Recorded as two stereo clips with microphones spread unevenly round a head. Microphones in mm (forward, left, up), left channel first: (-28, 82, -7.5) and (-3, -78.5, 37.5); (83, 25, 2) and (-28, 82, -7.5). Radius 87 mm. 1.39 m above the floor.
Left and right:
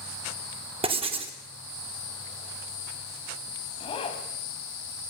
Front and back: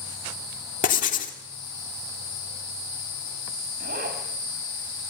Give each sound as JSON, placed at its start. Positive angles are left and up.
{"t": 0.8, "sound": "writing", "azimuth_deg": -25, "distance_m": 2.5}
{"t": 3.8, "sound": "a zipper", "azimuth_deg": 160, "distance_m": 4.5}